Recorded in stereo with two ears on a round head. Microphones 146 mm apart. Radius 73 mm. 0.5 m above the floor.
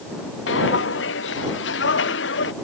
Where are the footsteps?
85° left.